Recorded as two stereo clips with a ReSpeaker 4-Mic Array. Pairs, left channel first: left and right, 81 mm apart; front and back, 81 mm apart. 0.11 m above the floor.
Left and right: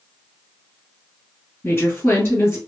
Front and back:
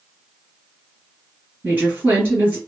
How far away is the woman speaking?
About 2.0 m.